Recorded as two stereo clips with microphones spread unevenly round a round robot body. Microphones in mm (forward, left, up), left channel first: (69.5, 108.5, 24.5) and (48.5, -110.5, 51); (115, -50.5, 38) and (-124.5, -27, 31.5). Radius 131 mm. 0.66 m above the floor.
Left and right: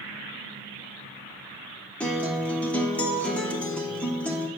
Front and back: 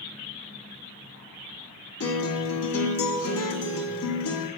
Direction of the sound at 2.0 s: 5° left.